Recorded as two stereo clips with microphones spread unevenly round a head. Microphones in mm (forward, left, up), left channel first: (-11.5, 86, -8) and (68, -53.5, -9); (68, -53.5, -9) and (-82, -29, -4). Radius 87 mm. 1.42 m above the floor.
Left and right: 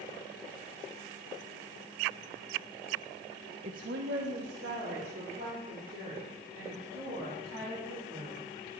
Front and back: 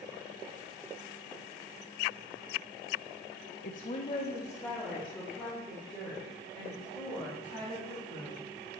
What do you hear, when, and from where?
3.6 s a woman speaking: 15° right, 0.6 m; by 8.4 s 95° right, 7 m